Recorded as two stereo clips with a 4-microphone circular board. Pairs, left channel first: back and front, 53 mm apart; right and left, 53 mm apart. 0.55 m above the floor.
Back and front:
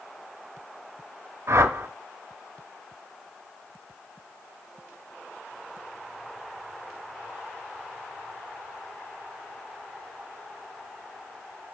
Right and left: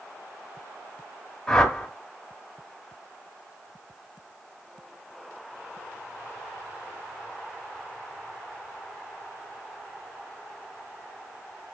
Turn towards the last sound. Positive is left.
turn(degrees=-10)